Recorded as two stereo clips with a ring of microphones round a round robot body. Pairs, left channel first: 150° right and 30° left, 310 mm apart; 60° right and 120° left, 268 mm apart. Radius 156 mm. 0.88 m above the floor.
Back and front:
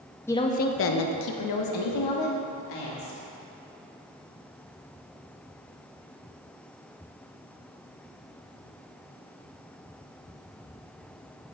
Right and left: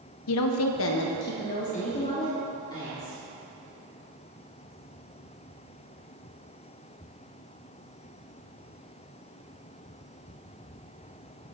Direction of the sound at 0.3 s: 65° right.